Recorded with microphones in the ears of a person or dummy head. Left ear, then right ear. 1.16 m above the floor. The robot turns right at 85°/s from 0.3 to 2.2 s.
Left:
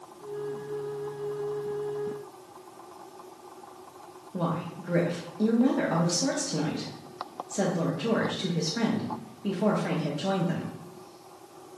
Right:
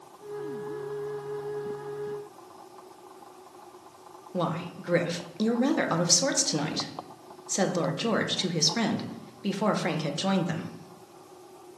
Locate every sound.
4.3 s a woman speaking: 45° right (ahead or behind), 0.8 m